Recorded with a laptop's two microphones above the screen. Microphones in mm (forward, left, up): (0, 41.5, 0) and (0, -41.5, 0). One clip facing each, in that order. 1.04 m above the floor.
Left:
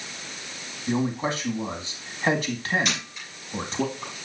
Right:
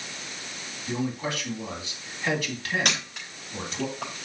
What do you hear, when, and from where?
0.9 s a man speaking: 35° left (ahead or behind), 1.9 m
2.9 s a camera shutter: 65° right (ahead or behind), 3.5 m